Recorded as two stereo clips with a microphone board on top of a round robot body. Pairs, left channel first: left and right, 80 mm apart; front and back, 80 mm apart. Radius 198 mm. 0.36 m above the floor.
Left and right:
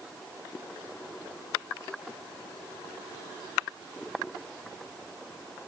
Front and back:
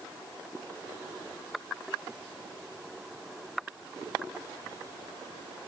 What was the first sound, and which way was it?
Only background noise.